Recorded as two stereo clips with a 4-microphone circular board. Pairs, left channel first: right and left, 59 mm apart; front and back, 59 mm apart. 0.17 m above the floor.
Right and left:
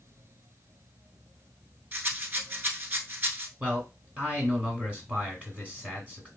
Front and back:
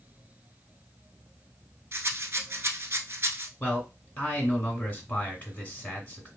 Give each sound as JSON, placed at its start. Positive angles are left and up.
{"t": 1.9, "sound": "a rattle", "azimuth_deg": 140, "distance_m": 0.8}
{"t": 3.6, "sound": "a man speaking", "azimuth_deg": 45, "distance_m": 1.8}